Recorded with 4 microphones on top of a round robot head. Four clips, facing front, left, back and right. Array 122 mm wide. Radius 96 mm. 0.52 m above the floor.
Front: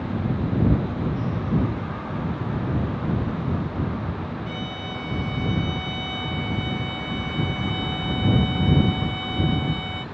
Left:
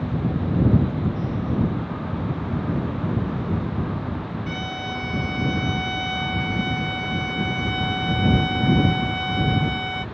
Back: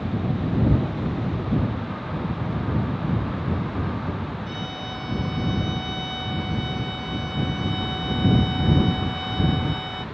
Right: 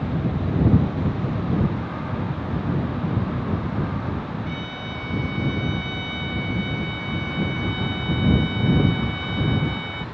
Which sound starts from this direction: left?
A violin, at 4.5 s.